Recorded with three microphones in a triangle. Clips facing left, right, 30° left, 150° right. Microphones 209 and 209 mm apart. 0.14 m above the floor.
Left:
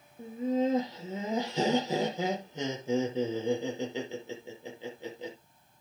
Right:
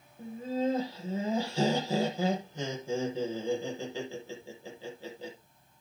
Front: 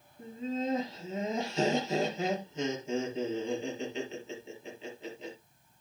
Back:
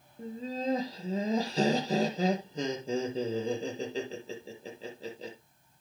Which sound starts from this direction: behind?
Laughter, at 0.2 s.